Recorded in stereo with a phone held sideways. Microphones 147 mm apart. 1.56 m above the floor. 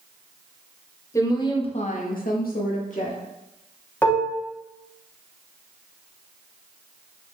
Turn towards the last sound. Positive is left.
turn(degrees=15)  # may be behind; listen again after turning